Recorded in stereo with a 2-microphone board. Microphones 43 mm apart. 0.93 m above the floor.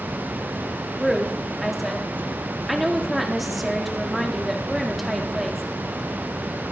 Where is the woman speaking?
Centre (ahead or behind), 1.8 m.